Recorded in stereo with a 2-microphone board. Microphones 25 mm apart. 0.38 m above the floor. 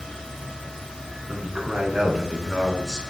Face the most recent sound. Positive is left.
turn(degrees=-15)  # may be behind; listen again after turning